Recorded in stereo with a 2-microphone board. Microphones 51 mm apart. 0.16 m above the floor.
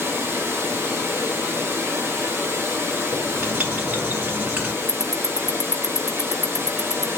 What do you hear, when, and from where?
0.0 s running water: 45° right (ahead or behind), 1.1 m
3.1 s writing: 25° right (ahead or behind), 2 m
4.9 s ticking: 5° right (ahead or behind), 0.6 m